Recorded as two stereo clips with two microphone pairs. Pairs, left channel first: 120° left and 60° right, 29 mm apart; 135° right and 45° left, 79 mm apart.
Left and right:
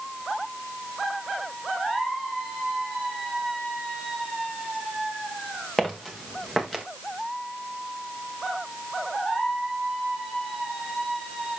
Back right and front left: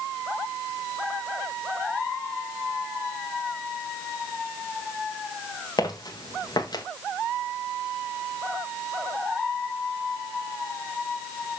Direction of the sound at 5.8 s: 165° right.